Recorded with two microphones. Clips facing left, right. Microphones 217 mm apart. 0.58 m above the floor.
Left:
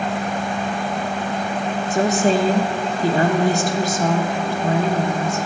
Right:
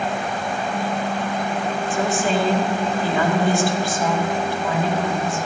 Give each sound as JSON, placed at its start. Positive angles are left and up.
{"t": 1.9, "sound": "a woman speaking", "side_deg": 40, "distance_m": 0.9}